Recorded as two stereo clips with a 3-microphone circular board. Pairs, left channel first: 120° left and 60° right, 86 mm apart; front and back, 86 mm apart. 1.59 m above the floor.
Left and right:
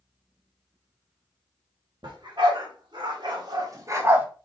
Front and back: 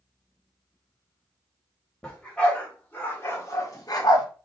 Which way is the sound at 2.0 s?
80° right.